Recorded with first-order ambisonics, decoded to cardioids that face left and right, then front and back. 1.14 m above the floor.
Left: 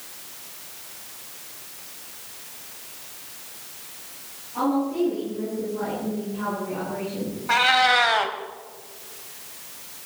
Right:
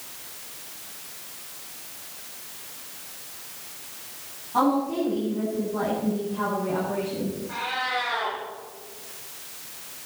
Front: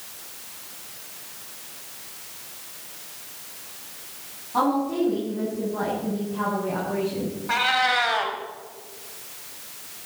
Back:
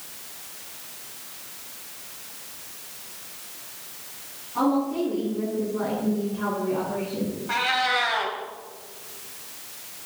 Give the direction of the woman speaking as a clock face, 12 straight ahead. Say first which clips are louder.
Right 1 dB, front 1 dB; 1 o'clock.